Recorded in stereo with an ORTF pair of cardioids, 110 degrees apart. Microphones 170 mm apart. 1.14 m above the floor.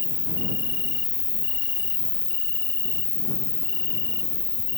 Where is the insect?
25° left.